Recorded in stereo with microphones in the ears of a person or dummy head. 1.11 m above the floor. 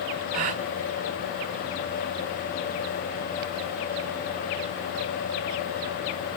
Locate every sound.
0.3 s a gasp: 40° right (ahead or behind), 0.9 m